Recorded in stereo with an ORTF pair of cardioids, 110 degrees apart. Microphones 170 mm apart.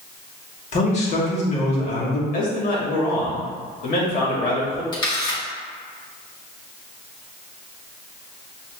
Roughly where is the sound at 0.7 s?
Ahead left.